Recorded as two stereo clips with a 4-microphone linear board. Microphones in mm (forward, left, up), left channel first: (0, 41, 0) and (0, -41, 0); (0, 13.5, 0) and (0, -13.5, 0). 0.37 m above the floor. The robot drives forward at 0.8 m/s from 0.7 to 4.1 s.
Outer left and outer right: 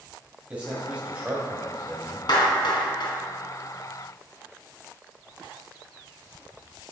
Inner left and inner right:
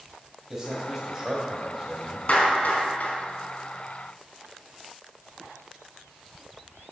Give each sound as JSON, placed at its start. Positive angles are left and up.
{"t": 0.5, "sound": "a man speaking", "side_deg": -20, "distance_m": 2.0}
{"t": 2.3, "sound": "a clap", "side_deg": 60, "distance_m": 2.5}